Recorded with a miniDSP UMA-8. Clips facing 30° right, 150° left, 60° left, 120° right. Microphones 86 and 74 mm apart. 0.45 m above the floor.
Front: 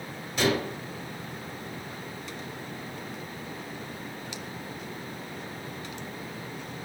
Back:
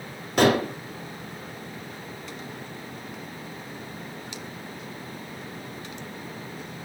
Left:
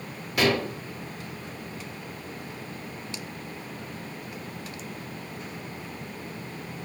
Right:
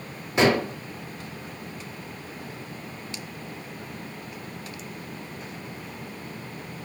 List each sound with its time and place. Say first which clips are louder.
0.4 s dishes clattering: back 6 dB, right 3 dB; straight behind, 1.4 m